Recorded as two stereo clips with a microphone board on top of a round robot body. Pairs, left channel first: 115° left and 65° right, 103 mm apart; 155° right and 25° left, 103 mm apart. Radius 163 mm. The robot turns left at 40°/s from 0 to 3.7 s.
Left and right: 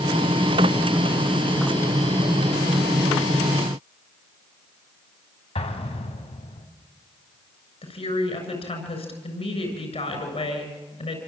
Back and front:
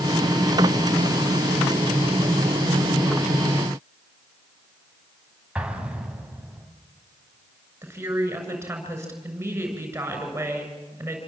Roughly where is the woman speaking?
Left.